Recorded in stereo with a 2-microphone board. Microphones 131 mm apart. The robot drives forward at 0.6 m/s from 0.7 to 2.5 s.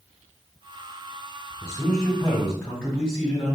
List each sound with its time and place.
1.6 s a man speaking: 5° left (ahead or behind), 2.0 m